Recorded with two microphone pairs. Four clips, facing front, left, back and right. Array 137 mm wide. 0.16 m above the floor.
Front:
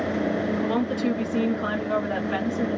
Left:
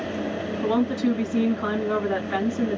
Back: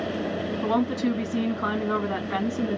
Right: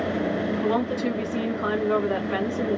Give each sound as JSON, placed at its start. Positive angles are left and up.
{"t": 0.6, "sound": "a woman speaking", "azimuth_deg": -175, "distance_m": 1.6}